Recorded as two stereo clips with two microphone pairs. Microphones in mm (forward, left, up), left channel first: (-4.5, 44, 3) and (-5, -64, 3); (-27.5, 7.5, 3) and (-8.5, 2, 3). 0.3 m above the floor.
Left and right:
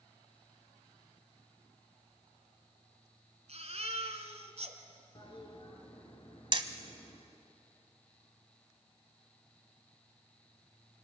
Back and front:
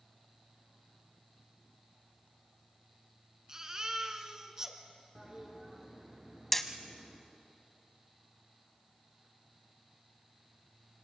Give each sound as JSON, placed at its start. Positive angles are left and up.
{"t": 3.5, "sound": "a baby crying", "azimuth_deg": -80, "distance_m": 1.9}
{"t": 5.2, "sound": "a toilet flushing", "azimuth_deg": 50, "distance_m": 3.5}
{"t": 6.5, "sound": "hammering", "azimuth_deg": -125, "distance_m": 1.4}